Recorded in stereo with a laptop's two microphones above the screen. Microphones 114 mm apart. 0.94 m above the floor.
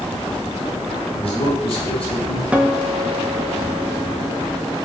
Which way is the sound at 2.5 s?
10° right (ahead or behind).